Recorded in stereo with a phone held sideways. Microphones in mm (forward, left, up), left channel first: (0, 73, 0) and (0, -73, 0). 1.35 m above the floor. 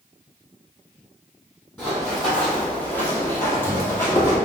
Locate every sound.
1.8 s running footsteps: 5° left (ahead or behind), 2.0 m; by 4.4 s 15° left (ahead or behind), 2 m